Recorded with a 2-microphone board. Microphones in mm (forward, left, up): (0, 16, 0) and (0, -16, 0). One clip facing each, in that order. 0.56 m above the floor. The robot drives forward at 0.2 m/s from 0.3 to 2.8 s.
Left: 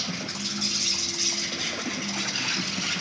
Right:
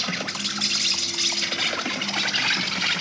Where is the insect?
80° right, 1.1 m; by 3.0 s 55° right (ahead or behind), 1.3 m.